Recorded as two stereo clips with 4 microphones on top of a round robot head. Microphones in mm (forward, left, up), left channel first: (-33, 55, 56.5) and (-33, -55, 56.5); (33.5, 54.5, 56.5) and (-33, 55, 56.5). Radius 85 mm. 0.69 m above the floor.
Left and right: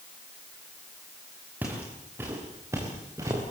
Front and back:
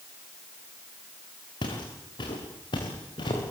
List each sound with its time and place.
1.6 s footsteps: 10° right, 5.5 m; by 3.4 s 20° right, 6 m